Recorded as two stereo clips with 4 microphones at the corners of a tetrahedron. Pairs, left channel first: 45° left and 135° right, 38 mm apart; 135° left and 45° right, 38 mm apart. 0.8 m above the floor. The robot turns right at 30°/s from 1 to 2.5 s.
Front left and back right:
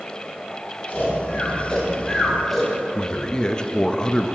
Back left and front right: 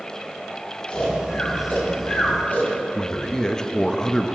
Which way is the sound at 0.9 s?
85° left.